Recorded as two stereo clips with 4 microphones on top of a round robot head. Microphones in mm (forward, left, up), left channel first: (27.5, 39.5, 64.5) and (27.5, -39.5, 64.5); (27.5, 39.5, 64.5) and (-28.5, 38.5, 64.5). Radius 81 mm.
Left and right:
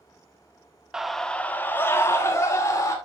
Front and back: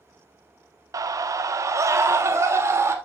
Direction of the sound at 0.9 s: 175° right.